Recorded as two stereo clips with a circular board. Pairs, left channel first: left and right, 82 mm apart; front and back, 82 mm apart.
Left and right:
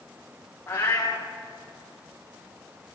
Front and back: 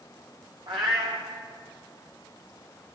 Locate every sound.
0.7 s a cat meowing: 160° left, 4.5 m